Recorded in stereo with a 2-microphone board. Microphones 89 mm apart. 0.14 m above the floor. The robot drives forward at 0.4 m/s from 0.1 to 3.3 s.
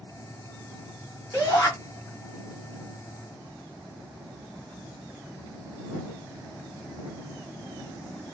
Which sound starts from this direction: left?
A shout, at 1.3 s.